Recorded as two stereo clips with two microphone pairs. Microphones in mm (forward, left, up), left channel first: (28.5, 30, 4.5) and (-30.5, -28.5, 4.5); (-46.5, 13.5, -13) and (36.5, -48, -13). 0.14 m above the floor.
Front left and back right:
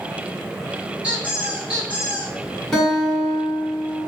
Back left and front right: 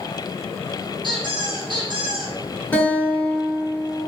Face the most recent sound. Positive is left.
turn(degrees=125)